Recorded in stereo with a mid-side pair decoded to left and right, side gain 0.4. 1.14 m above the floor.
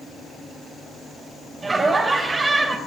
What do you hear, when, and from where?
1.6 s laughter: 40° right, 3.5 m